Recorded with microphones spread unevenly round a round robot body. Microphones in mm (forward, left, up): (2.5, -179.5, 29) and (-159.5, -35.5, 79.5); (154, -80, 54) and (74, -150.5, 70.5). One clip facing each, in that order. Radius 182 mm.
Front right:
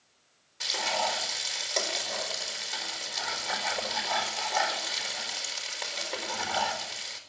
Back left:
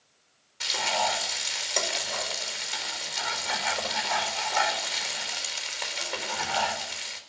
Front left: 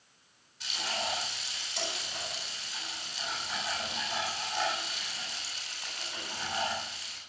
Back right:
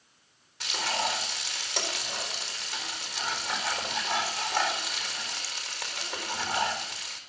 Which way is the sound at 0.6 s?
130° right.